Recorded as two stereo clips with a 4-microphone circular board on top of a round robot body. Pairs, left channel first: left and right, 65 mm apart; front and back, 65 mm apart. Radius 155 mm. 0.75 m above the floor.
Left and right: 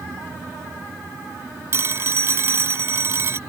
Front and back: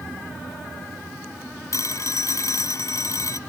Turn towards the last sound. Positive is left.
turn(degrees=-40)